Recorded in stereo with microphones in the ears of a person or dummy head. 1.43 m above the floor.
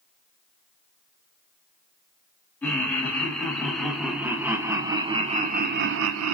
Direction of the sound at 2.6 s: 10° left (ahead or behind).